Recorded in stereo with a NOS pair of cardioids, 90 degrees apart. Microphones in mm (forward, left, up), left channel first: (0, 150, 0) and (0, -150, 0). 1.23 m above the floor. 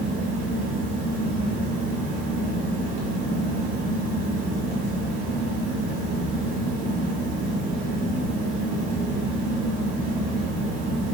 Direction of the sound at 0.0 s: 55° right.